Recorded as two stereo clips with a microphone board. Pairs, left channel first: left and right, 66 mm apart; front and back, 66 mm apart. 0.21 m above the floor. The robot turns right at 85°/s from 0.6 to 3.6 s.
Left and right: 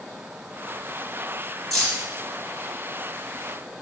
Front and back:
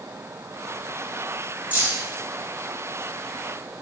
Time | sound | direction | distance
1.7 | keys jangling | 170° left | 1.0 m